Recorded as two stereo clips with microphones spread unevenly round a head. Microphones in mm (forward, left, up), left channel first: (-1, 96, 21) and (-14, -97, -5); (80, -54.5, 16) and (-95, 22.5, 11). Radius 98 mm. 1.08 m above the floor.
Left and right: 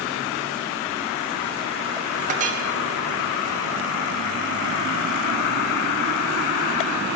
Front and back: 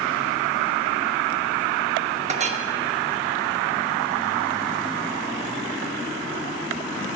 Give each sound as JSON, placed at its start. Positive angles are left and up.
{"t": 2.3, "sound": "a clink", "azimuth_deg": -150, "distance_m": 1.0}